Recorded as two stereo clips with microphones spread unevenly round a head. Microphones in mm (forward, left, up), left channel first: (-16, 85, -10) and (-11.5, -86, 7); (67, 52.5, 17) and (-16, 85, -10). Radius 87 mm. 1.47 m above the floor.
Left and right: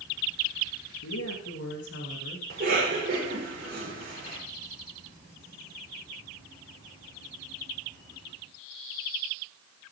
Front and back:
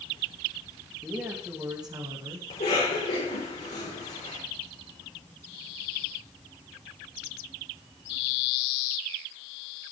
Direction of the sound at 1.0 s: 90° left.